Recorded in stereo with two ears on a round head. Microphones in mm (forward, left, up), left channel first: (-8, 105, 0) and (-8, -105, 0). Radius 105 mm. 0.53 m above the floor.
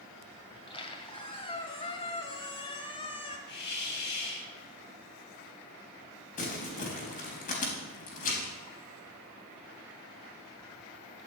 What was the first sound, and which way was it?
A squeak, 25° left (ahead or behind).